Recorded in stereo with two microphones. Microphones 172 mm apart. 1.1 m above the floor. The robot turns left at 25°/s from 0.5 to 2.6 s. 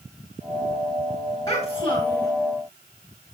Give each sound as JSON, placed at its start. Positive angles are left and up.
{"t": 1.5, "sound": "a child speaking", "side_deg": 25, "distance_m": 3.5}